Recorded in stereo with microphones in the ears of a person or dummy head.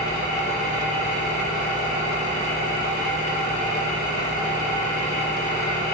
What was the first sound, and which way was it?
An engine running, 40° left (ahead or behind).